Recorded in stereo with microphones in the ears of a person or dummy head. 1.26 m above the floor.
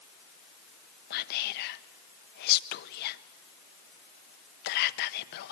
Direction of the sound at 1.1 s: 55° left (ahead or behind).